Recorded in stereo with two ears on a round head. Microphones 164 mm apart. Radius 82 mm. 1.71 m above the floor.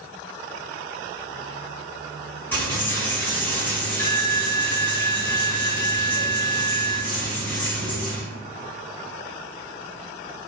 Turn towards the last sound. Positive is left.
turn(degrees=10)  # may be behind; listen again after turning